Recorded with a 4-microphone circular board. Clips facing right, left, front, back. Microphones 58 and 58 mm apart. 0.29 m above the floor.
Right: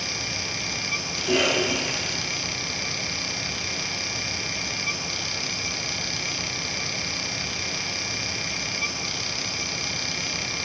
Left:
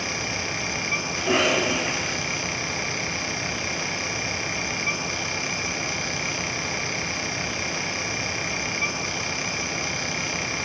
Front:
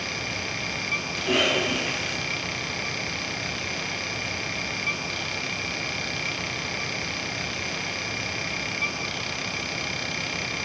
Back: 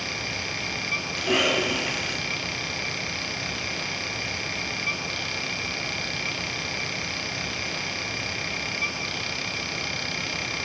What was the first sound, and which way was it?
A cough, 115° left.